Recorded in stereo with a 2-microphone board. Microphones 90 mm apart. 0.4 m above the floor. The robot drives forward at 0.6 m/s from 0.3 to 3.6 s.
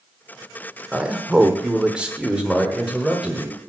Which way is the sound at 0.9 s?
10° right (ahead or behind).